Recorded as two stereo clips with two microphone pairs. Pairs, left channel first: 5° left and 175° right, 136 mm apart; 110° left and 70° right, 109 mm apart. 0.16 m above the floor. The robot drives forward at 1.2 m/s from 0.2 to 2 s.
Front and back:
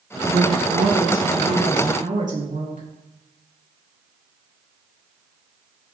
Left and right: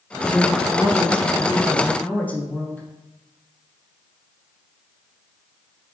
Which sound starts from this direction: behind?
A woman speaking, at 0.3 s.